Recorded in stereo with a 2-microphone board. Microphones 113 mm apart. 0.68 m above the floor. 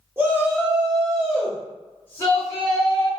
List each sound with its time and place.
0.2 s a shout: 20° right (ahead or behind), 1.1 m; by 3.1 s 35° left (ahead or behind), 1.4 m